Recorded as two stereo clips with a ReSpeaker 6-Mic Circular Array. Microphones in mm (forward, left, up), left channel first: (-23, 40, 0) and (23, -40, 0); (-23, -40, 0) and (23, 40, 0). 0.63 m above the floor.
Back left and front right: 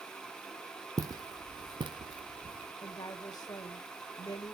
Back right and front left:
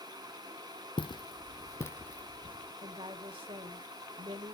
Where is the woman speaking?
70° left, 1.9 m.